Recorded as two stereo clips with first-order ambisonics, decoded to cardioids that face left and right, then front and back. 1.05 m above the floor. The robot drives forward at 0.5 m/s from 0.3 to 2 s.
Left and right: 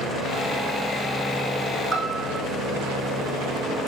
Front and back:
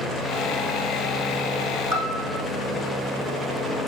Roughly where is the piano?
Behind right.